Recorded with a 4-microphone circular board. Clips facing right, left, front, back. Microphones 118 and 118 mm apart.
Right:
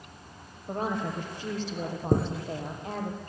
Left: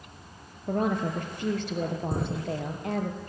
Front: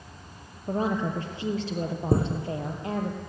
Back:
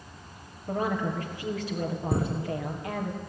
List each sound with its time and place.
0.7 s a woman speaking: 60° left, 3.5 m
2.1 s a chime: 55° right, 5 m